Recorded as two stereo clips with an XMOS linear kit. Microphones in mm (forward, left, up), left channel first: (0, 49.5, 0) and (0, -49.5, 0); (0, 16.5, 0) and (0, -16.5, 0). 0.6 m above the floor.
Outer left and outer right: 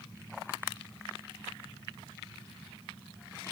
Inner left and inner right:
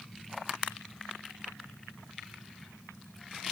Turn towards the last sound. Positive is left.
No sound to turn to.